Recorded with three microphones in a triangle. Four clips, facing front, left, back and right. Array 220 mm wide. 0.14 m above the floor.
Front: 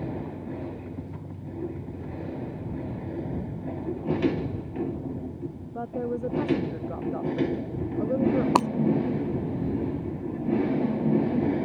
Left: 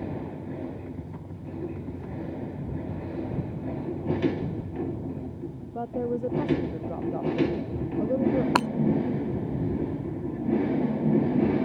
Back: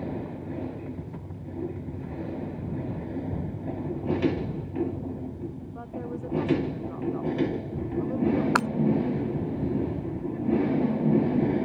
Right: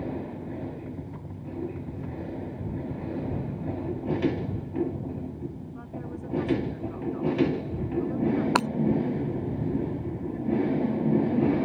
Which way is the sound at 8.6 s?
Straight ahead.